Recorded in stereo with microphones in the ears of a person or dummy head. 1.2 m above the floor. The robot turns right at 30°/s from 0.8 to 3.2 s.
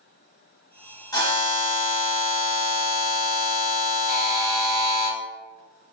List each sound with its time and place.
1.1 s a buzzer: 25° left, 1.2 m; by 5.1 s 85° left, 1.2 m
4.1 s a buzzer: 15° right (ahead or behind), 0.7 m